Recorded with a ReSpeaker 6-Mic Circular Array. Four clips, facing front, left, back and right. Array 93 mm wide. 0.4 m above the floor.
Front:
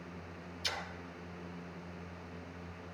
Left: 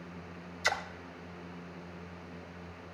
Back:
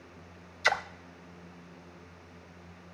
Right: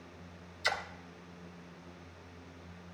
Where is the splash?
175° left, 0.5 m.